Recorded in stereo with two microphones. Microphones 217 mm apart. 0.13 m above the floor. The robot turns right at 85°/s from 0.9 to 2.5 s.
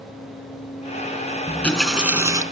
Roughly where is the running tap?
Centre.